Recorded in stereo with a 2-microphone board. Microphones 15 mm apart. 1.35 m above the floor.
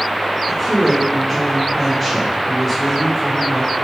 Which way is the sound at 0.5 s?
5° left (ahead or behind).